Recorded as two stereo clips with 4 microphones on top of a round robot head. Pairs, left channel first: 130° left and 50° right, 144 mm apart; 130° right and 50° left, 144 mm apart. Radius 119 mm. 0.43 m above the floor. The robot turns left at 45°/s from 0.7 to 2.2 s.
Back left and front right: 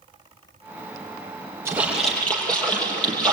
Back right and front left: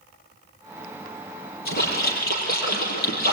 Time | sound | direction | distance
1.6 | a splash | 120° right | 6 m